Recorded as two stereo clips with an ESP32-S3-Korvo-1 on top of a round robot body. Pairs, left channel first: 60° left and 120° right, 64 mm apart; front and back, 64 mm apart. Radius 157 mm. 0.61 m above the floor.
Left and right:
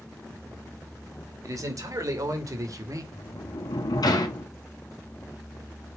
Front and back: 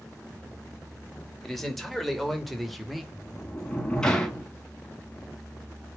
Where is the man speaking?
85° right, 3 m; by 3.0 s 90° right, 2 m.